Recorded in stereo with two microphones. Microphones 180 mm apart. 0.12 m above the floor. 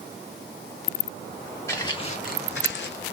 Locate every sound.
1.7 s footsteps: 15° left (ahead or behind), 0.8 m; by 3.1 s 65° left (ahead or behind), 0.8 m